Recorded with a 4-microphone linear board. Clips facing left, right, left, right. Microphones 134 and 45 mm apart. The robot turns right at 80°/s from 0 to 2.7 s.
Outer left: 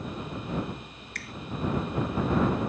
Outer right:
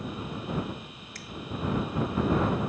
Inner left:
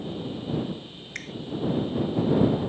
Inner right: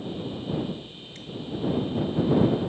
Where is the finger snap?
80° left; by 1.3 s 85° left.